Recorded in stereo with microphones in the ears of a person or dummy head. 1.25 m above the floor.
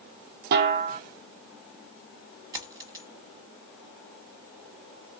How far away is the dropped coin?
About 0.9 m.